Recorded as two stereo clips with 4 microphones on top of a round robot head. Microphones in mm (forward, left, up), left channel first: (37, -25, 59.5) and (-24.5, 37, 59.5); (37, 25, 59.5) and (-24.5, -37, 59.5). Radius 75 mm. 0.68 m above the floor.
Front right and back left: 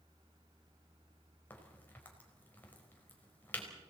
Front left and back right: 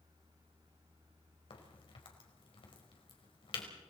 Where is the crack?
25° left, 4.5 m.